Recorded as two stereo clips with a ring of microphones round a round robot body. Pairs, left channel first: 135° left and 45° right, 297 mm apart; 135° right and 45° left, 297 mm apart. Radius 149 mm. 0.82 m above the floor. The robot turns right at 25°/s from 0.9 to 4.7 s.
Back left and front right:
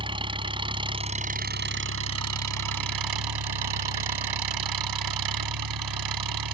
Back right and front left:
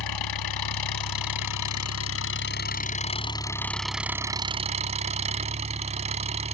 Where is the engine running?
120° right; by 6.5 s 25° right.